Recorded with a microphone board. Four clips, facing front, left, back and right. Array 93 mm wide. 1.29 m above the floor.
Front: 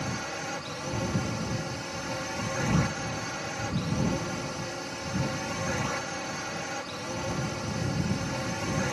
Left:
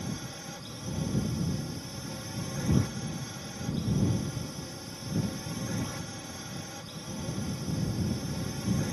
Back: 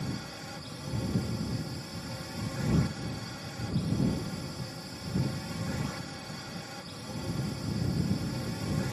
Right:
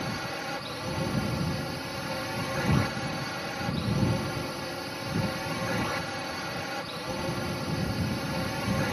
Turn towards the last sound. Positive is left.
turn(degrees=-45)